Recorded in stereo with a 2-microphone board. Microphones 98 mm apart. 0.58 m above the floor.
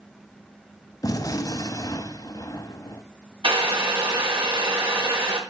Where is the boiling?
65° right (ahead or behind), 4.5 m.